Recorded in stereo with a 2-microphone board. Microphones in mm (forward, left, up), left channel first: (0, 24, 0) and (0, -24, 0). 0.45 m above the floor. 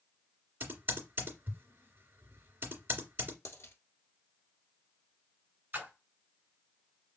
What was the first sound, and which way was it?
Typing on a keyboard, 45° right (ahead or behind).